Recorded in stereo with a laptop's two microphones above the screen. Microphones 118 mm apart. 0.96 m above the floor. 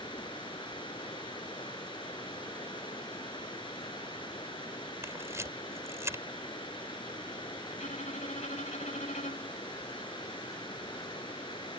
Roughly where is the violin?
Left.